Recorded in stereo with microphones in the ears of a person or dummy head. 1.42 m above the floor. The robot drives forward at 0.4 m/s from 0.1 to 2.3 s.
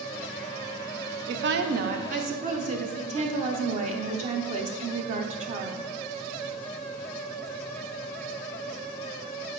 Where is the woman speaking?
65° right (ahead or behind), 0.6 m; by 5.9 s 40° right (ahead or behind), 0.8 m.